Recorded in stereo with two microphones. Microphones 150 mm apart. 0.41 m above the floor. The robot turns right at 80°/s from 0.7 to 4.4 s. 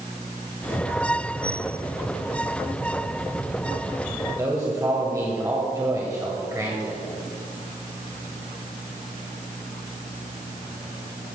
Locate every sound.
4.3 s a man speaking: 25° right (ahead or behind), 2 m; by 7.0 s 20° right (ahead or behind), 2 m